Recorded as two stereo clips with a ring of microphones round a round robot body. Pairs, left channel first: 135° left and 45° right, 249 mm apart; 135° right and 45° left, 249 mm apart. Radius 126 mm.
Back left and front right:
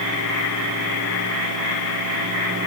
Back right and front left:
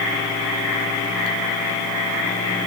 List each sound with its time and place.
Only background noise.